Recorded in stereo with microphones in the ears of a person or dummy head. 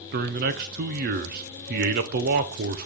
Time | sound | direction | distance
0.1 | a man speaking | 55° right (ahead or behind) | 0.8 m